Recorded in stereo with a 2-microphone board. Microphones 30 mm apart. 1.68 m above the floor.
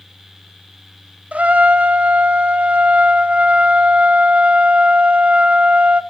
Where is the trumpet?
60° right (ahead or behind), 0.7 m.